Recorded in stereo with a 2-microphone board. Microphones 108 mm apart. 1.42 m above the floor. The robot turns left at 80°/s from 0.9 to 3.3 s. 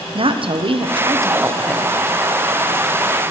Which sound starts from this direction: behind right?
A woman speaking, at 0.1 s.